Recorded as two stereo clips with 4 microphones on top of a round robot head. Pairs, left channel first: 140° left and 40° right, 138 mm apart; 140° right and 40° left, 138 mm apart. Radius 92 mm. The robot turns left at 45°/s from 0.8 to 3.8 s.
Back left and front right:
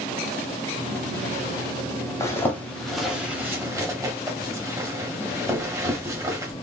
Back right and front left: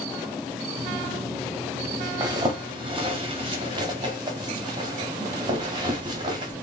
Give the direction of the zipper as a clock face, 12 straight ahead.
9 o'clock.